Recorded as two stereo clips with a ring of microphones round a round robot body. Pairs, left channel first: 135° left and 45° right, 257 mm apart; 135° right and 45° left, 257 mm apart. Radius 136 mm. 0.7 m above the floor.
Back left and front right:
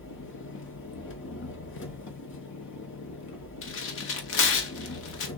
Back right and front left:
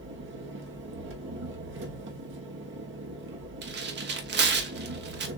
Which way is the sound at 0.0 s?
90° left.